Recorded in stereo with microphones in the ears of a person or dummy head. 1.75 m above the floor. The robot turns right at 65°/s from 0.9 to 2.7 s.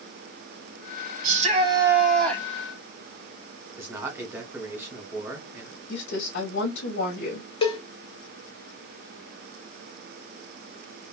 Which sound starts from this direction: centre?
A man speaking, at 3.8 s.